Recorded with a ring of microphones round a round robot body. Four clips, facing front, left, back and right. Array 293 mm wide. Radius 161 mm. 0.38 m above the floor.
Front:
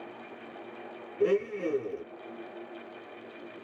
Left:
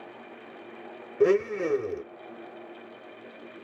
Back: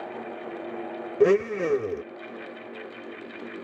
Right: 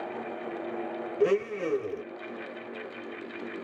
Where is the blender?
160° left, 0.5 m.